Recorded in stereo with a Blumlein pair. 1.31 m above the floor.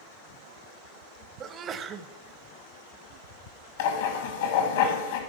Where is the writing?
60° left, 1.7 m.